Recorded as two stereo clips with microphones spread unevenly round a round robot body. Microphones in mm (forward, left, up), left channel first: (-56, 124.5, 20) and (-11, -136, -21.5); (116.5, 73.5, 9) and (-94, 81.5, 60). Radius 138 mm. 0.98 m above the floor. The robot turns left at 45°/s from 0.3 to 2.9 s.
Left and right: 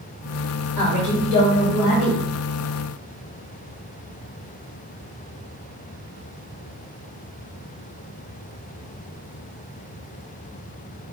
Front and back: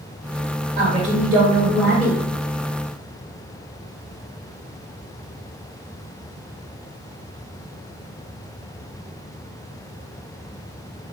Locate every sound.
0.8 s a woman speaking: 125° left, 1.8 m; by 2.2 s 60° left, 1.8 m